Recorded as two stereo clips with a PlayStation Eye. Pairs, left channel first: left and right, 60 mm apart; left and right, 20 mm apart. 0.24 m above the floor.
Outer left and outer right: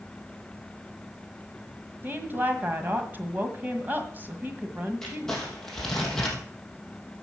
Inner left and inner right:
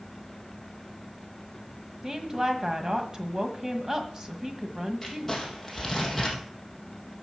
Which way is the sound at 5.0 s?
10° left (ahead or behind).